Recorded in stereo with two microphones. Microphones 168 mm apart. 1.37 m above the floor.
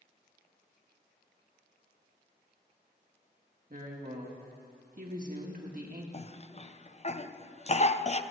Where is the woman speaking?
55° right (ahead or behind), 1.8 m.